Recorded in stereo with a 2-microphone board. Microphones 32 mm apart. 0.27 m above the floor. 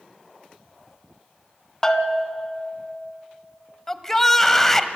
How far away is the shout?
About 1.2 m.